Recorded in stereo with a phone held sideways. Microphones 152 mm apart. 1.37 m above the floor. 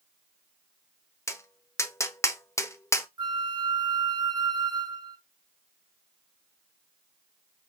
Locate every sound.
1.3 s tapping: 20° left (ahead or behind), 0.6 m
3.2 s a flute: 30° right (ahead or behind), 0.6 m